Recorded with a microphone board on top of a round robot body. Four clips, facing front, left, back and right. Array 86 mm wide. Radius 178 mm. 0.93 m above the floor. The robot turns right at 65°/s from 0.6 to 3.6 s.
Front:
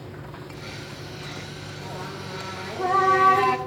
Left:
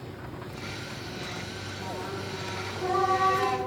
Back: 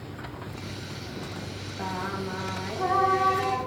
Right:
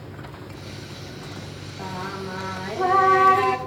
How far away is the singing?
About 1.2 m.